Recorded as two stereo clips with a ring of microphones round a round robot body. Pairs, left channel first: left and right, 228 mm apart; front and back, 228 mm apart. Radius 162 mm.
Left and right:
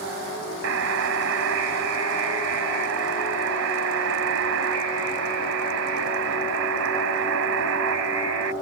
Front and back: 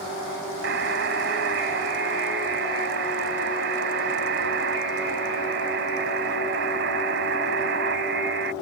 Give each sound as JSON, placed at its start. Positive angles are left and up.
{"t": 0.6, "sound": "a buzzer", "azimuth_deg": -130}